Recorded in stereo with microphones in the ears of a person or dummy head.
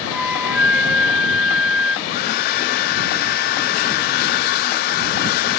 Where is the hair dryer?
60° left (ahead or behind).